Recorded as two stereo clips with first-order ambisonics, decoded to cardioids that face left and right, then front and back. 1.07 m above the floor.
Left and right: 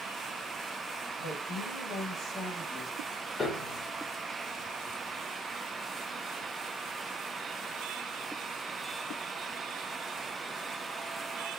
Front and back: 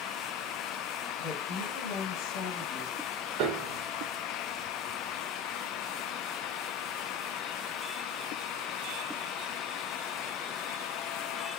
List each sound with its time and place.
1.2 s a woman speaking: 60° left, 1.2 m; by 3.0 s 5° right, 1.4 m
3.4 s a piano: 165° left, 0.6 m